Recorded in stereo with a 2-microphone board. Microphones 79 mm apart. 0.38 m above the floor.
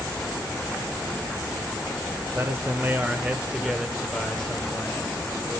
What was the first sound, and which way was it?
A man speaking, 35° right (ahead or behind).